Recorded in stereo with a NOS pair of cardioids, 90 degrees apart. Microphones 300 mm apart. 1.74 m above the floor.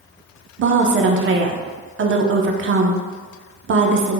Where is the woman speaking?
40° right, 0.6 m.